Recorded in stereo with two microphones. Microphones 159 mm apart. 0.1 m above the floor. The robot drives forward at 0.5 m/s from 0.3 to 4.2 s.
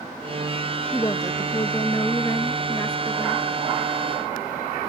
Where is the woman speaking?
20° left (ahead or behind).